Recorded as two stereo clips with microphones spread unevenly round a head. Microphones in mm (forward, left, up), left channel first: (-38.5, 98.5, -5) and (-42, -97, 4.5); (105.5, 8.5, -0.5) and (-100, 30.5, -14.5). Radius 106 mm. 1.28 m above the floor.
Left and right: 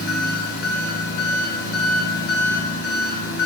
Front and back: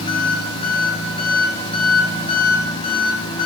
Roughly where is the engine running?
Ahead left.